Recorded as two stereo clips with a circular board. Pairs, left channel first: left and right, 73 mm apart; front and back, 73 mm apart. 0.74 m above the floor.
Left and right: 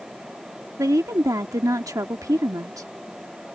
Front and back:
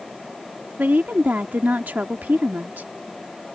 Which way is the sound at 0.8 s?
115° right.